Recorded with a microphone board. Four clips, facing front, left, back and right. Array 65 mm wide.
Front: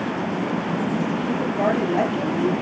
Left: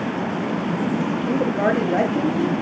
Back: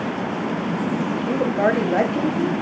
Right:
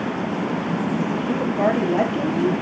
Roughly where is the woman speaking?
Behind left.